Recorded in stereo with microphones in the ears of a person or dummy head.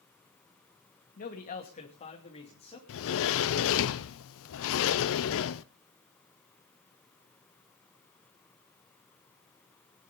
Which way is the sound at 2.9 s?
70° left (ahead or behind).